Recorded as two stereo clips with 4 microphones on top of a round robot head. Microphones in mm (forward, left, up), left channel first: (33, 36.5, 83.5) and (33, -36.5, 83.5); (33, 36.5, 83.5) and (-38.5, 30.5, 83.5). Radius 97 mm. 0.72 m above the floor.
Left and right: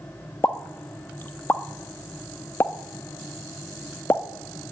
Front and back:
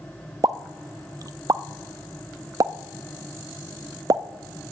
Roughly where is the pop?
Behind left.